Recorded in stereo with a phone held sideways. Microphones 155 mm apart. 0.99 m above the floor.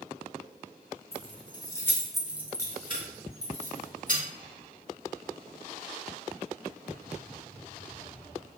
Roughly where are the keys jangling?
Left.